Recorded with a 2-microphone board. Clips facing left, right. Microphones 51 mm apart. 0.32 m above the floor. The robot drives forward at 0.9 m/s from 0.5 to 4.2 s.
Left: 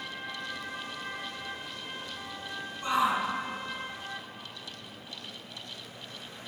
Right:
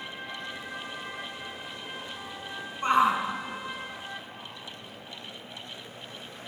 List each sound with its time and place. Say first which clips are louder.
2.8 s a shout: right 4 dB; 45° right (ahead or behind), 3 m; by 3.2 s 50° right (ahead or behind), 2.5 m